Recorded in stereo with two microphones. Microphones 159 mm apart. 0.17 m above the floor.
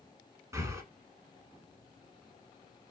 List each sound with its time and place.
0.5 s breathing: 20° right (ahead or behind), 0.8 m